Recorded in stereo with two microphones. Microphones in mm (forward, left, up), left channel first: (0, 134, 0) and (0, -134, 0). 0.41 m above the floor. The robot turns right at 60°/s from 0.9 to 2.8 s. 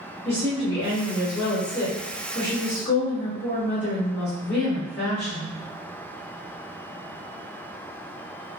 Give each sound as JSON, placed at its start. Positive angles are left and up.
{"t": 0.2, "sound": "a woman speaking", "azimuth_deg": -35, "distance_m": 0.9}